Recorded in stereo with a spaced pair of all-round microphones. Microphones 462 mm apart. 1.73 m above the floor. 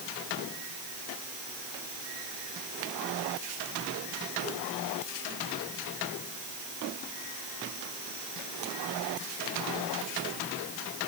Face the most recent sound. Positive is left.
No sound to turn to.